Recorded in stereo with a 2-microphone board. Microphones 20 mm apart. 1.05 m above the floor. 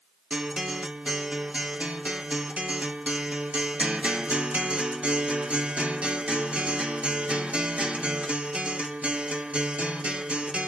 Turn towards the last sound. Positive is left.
turn(degrees=-85)